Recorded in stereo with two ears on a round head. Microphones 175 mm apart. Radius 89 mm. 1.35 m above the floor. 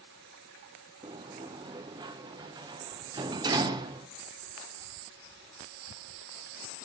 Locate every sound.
1.0 s a sliding door: 20° right (ahead or behind), 0.5 m